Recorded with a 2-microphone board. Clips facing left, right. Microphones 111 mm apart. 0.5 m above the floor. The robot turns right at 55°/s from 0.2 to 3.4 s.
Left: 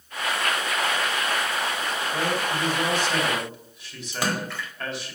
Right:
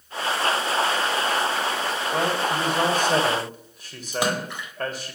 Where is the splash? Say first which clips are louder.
Right 3 dB; 20° right (ahead or behind), 1.0 m.